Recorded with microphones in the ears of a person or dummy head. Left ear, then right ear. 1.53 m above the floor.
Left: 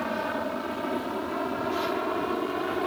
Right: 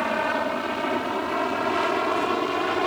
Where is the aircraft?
70° right (ahead or behind).